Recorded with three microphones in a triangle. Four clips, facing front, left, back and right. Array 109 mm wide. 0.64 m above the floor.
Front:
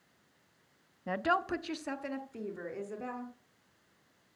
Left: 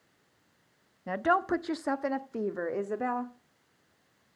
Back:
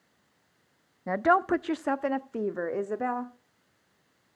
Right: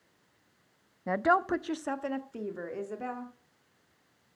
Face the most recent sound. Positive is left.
turn(degrees=145)